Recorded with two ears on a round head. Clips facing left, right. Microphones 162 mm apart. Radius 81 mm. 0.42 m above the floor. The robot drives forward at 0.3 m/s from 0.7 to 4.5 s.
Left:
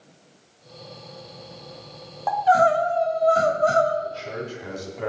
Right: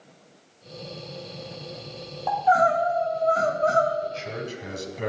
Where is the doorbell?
No doorbell in this recording.